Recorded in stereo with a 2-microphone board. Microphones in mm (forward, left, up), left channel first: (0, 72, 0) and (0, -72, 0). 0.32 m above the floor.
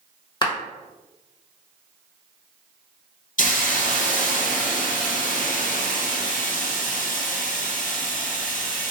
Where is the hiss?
65° left (ahead or behind), 0.8 m.